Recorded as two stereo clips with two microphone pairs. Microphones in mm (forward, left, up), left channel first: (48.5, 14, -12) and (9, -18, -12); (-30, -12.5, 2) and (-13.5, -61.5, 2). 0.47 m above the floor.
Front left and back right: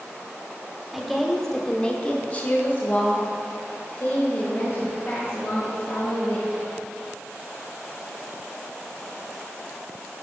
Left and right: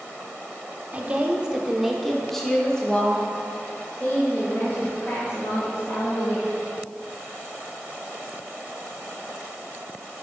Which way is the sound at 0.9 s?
50° right.